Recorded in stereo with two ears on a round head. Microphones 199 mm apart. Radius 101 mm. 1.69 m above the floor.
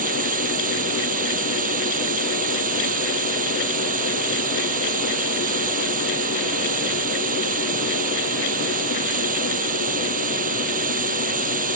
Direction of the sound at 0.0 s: 35° right (ahead or behind).